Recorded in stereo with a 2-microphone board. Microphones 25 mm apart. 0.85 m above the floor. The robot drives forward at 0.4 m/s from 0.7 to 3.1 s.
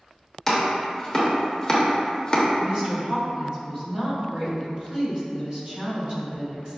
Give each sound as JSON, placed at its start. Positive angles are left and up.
{"t": 0.5, "sound": "chopping", "side_deg": 15, "distance_m": 0.9}
{"t": 2.6, "sound": "a woman speaking", "side_deg": -35, "distance_m": 1.0}